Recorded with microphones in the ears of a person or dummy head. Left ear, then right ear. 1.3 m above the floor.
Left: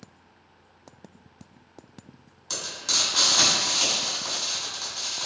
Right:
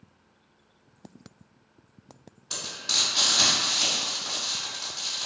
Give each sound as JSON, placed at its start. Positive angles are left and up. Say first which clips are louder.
{"t": 2.5, "sound": "frying", "louder": "left 1 dB", "side_deg": 65, "distance_m": 2.0}